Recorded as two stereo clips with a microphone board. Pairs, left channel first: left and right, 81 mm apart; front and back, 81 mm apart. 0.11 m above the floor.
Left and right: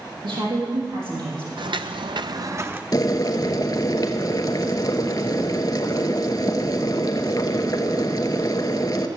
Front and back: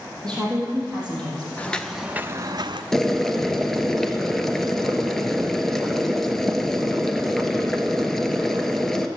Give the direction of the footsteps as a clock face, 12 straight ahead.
2 o'clock.